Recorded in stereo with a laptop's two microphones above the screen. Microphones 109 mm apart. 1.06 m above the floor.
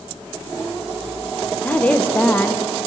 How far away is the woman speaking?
About 0.6 m.